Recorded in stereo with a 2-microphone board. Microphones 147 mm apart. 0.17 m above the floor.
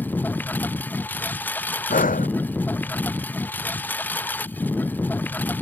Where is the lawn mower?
10° left (ahead or behind).